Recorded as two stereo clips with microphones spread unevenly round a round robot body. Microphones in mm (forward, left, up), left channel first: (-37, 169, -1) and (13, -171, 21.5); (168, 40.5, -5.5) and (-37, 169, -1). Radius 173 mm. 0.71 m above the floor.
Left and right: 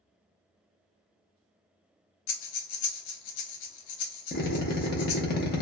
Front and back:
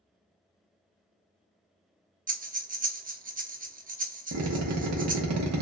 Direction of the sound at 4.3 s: 160° left.